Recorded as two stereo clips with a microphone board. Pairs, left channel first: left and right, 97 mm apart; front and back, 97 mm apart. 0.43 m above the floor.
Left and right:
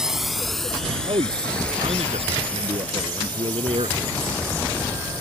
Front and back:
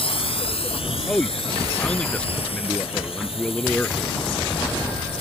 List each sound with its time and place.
0.0 s a drone: 5° right; by 5.2 s 15° left
1.1 s a man speaking: 80° right